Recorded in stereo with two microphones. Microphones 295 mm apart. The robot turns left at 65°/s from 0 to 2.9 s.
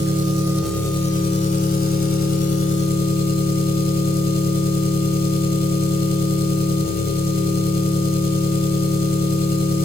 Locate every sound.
0.0 s an engine running: 135° right, 0.8 m; by 9.8 s 35° left, 0.8 m